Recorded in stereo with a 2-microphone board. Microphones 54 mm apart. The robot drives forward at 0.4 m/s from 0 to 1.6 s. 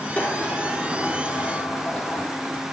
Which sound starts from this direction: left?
A sliding door, at 0.2 s.